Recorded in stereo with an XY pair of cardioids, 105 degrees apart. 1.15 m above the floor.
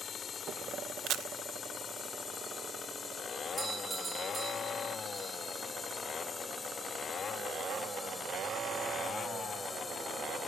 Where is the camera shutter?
70° right.